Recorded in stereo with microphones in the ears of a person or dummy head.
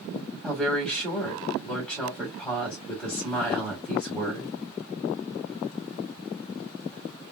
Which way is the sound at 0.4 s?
Centre (ahead or behind).